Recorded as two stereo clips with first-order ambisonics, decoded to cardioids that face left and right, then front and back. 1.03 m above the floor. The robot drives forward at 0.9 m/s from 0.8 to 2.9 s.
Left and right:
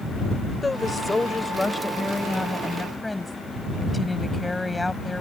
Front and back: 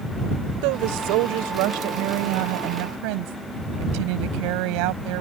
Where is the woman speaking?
170° left; by 5.2 s 175° left.